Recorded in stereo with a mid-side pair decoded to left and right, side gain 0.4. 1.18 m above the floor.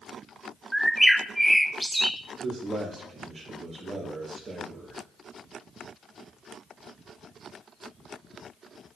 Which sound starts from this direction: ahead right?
A man speaking, at 2.4 s.